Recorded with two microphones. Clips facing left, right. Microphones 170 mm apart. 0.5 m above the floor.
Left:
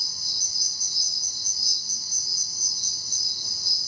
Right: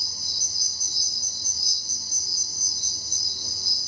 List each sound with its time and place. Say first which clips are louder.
0.0 s an insect: right 3 dB; 50° right (ahead or behind), 0.7 m